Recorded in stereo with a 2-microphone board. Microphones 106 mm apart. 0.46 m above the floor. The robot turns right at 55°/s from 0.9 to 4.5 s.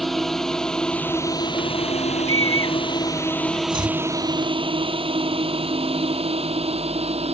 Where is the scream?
65° right (ahead or behind); by 3.6 s 40° right (ahead or behind).